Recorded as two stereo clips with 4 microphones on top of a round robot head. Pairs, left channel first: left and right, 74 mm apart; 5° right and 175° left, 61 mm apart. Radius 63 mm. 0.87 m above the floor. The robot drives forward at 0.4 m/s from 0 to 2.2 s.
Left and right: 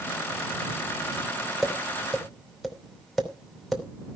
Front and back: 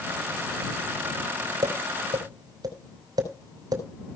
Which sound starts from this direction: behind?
Tapping, at 1.6 s.